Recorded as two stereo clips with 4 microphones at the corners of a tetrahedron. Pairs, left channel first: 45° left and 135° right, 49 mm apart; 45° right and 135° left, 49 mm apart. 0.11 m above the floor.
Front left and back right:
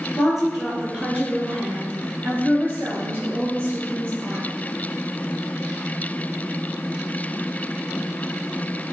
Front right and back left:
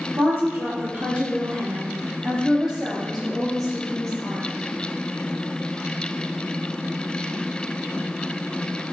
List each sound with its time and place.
0.2 s a woman speaking: 140° left, 1.7 m; by 4.4 s 120° right, 2.0 m